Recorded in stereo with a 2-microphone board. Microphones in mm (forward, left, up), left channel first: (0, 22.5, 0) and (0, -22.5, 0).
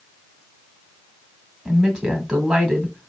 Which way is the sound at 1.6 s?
15° right (ahead or behind).